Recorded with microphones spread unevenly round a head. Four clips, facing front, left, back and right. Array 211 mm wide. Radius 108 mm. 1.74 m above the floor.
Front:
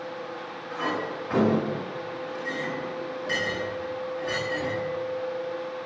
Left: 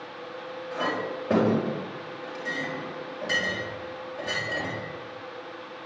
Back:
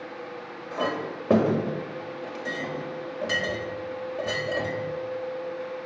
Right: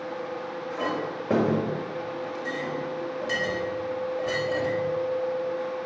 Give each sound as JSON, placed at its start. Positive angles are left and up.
{"t": 0.7, "sound": "a clink", "azimuth_deg": 180, "distance_m": 4.0}